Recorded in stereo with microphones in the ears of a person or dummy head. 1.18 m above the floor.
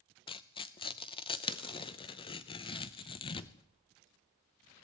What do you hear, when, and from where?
0.3 s tearing paper: 30° left (ahead or behind), 0.6 m